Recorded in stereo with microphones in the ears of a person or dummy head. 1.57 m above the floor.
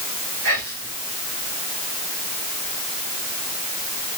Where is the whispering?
75° right (ahead or behind), 4.5 m.